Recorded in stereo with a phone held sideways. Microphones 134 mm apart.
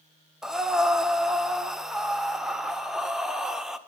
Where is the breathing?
5° right (ahead or behind), 0.5 m.